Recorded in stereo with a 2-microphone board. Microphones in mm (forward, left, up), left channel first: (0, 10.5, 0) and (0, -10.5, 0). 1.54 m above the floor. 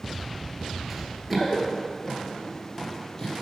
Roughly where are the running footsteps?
Centre.